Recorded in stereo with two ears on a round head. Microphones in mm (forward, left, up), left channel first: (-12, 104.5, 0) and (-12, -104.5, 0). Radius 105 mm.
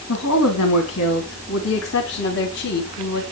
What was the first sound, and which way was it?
A woman speaking, 80° left.